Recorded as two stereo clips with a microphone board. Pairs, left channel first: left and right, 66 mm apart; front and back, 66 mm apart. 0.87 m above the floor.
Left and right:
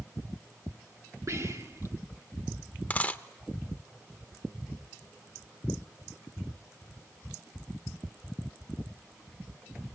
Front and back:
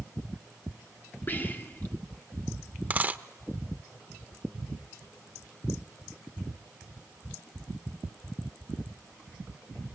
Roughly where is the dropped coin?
Behind left.